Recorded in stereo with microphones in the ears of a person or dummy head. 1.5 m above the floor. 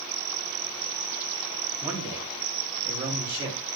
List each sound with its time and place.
1.8 s a man speaking: 10° right (ahead or behind), 3.5 m; by 3.6 s 25° right (ahead or behind), 5.5 m